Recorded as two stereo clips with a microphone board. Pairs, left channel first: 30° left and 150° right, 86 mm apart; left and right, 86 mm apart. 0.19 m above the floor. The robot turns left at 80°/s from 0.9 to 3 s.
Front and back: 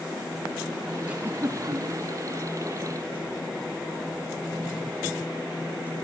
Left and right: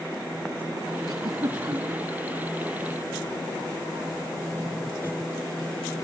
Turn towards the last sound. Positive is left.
turn(degrees=125)